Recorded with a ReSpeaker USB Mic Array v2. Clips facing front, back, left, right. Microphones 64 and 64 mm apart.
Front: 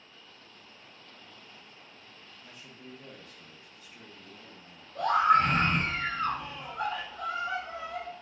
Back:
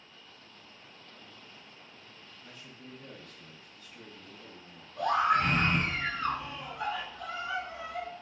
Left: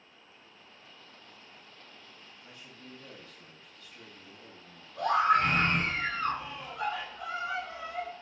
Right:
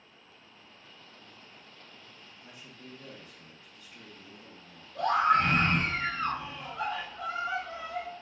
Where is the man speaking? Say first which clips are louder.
Front 1 dB, right 2 dB; 50° right, 0.7 m.